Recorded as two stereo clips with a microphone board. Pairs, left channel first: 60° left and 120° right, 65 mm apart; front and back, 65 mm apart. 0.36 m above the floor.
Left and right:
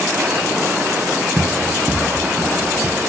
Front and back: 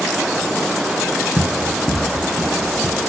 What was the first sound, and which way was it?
Running footsteps, 5° right.